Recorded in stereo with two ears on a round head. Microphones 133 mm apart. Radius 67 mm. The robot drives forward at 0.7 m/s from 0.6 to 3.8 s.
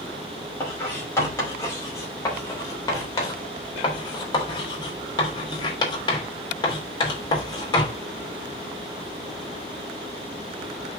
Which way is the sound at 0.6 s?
15° left (ahead or behind).